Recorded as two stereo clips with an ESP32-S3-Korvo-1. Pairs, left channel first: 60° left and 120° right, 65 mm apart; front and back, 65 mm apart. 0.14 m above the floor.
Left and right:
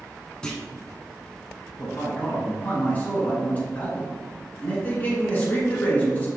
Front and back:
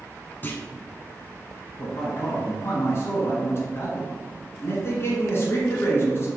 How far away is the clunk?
About 0.7 m.